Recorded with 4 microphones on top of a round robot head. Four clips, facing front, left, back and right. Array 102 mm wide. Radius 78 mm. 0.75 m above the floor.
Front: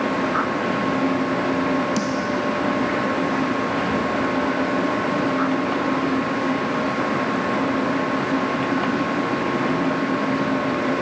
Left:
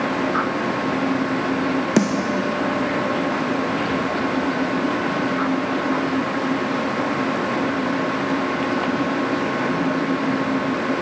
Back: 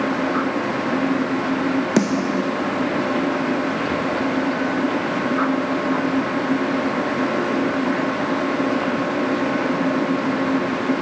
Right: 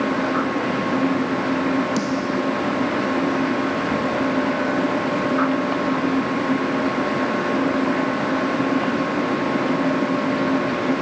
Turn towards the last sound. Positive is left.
turn(degrees=135)